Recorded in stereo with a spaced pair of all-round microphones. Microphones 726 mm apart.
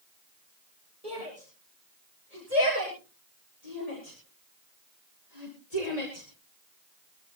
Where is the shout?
55° left (ahead or behind), 8.5 m; by 7.4 s 70° left (ahead or behind), 3 m.